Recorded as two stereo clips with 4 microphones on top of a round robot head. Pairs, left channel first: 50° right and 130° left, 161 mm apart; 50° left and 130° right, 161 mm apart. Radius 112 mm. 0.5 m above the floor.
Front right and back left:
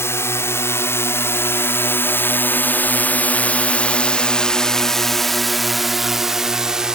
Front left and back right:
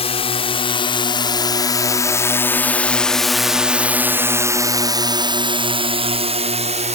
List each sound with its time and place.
0.0 s a drone: 15° left; by 7.0 s 150° right